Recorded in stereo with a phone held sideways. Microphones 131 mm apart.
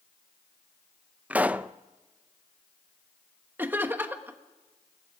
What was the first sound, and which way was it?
A pop, 10° right (ahead or behind).